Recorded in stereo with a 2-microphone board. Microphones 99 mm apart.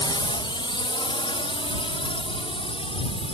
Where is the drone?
50° left (ahead or behind); by 3.3 s 65° left (ahead or behind).